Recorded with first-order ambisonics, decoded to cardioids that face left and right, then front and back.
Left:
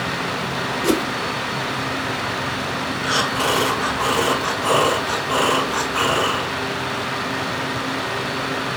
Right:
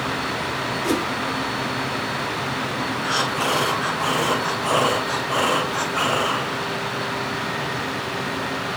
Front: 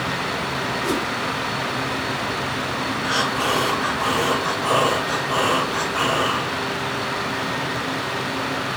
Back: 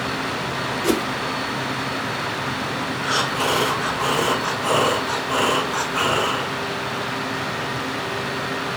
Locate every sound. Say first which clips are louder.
0.8 s a whoosh: left 4 dB, back 4 dB; 125° left, 1.1 m
3.0 s breathing: left 3 dB, back 1 dB; 115° left, 2 m